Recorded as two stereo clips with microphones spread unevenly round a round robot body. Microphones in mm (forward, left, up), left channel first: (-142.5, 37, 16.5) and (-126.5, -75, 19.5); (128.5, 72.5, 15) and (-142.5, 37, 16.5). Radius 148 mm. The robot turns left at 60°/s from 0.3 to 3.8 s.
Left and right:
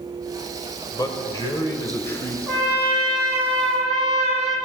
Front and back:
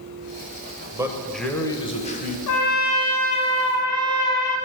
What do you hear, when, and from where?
0.9 s a man speaking: 120° left, 1.0 m; by 2.4 s 35° left, 1.0 m
2.5 s a trumpet: 10° left, 1.3 m; by 4.6 s 70° right, 1.3 m